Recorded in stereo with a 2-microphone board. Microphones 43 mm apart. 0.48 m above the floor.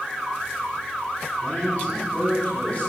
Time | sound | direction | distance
1.4 | a man speaking | 25° left (ahead or behind) | 3 m